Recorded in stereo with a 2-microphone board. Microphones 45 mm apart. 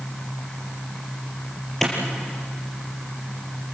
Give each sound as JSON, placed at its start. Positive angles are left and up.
{"t": 1.8, "sound": "a clap", "side_deg": 5, "distance_m": 4.5}